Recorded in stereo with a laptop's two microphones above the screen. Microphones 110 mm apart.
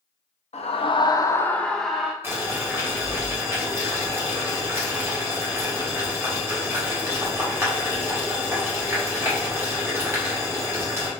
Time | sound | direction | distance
0.5 | a scream | 70° left (ahead or behind) | 0.5 m
2.2 | boiling | 20° right (ahead or behind) | 1.3 m